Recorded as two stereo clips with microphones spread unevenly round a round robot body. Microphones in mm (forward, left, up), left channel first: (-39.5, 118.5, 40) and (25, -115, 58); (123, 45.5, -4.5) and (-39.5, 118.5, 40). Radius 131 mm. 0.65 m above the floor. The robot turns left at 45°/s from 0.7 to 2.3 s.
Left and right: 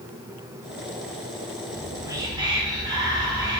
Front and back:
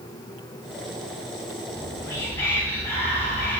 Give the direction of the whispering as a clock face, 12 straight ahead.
11 o'clock.